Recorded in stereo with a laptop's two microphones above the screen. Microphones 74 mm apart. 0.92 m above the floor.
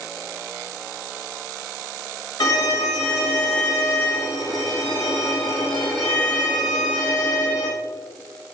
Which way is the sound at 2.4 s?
65° left (ahead or behind).